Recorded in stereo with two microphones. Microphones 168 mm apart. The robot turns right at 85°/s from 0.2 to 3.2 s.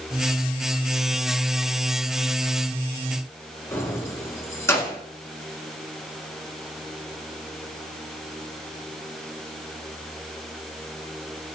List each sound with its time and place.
3.7 s keys jangling: 15° left (ahead or behind), 1.0 m